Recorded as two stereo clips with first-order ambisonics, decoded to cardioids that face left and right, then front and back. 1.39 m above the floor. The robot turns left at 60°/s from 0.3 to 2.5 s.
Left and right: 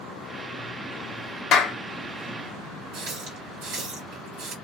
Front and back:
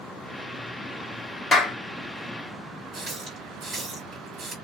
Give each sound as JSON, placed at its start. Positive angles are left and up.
{"t": 1.5, "sound": "a clap", "azimuth_deg": 60, "distance_m": 0.5}
{"t": 2.9, "sound": "a running tap", "azimuth_deg": -115, "distance_m": 1.6}